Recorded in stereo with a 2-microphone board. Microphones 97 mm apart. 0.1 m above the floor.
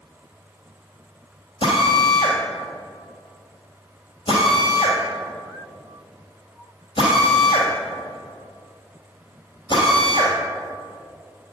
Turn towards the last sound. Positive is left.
turn(degrees=60)  # may be behind; listen again after turning